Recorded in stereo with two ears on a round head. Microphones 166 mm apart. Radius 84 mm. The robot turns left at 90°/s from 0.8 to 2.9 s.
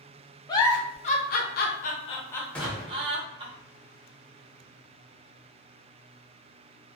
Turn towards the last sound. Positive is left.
turn(degrees=-25)